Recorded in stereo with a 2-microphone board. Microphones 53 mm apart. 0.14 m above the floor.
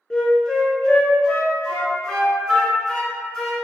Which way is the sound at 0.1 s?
15° left (ahead or behind).